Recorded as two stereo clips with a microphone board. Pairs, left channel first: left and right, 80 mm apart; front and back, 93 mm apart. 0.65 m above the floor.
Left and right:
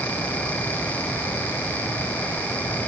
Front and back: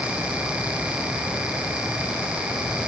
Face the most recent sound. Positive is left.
No sound to turn to.